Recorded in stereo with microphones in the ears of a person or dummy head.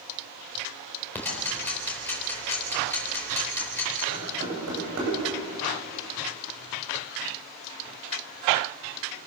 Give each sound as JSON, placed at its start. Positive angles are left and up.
{"t": 1.1, "sound": "ticking", "side_deg": 10, "distance_m": 4.0}
{"t": 4.1, "sound": "knocking", "side_deg": -85, "distance_m": 10.0}